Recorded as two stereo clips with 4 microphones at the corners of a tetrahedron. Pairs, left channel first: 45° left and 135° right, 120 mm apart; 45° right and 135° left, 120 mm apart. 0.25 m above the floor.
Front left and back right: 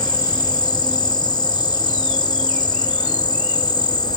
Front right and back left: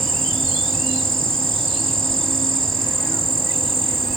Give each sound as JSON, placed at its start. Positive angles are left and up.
{"t": 0.0, "sound": "an insect", "azimuth_deg": 40, "distance_m": 1.3}